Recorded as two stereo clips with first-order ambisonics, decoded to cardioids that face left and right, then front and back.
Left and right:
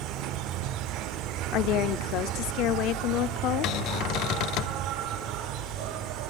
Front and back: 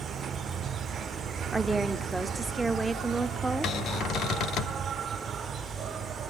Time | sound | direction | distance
0.0 | an insect | 120° right | 0.7 m
1.5 | a woman speaking | 100° left | 1.1 m
3.6 | a cupboard door | 50° left | 1.4 m